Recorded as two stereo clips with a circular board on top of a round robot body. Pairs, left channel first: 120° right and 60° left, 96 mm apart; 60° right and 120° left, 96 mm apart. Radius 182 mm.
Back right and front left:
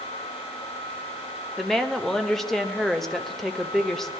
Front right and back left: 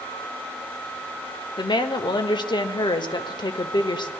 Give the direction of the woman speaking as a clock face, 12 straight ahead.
1 o'clock.